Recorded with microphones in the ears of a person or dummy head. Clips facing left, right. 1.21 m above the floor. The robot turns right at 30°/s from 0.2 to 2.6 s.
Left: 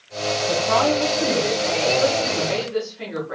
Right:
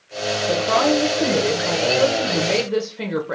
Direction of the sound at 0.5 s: 165° right.